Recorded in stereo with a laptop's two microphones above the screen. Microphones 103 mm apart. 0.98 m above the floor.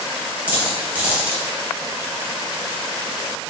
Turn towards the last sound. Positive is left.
turn(degrees=-15)  # may be behind; listen again after turning